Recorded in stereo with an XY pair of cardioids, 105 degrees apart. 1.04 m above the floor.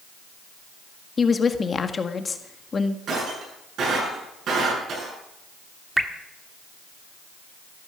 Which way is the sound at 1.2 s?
35° left.